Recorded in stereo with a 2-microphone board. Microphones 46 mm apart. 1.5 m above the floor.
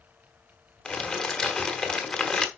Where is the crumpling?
15° left (ahead or behind), 1.4 m.